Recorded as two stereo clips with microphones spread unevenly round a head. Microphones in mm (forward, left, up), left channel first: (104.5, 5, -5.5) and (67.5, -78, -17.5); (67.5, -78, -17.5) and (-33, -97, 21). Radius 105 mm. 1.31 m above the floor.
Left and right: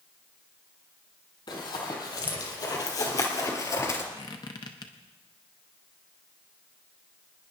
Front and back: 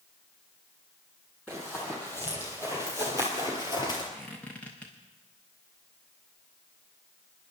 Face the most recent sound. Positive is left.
turn(degrees=105)